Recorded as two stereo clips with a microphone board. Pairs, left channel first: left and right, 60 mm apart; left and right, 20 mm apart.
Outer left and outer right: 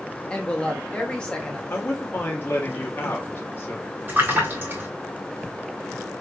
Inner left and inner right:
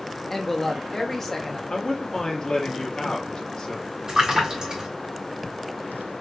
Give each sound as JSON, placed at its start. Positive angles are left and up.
{"t": 0.3, "sound": "a woman speaking", "side_deg": 15, "distance_m": 1.4}
{"t": 1.7, "sound": "a man speaking", "side_deg": 40, "distance_m": 1.6}
{"t": 4.1, "sound": "a splash", "side_deg": -35, "distance_m": 3.0}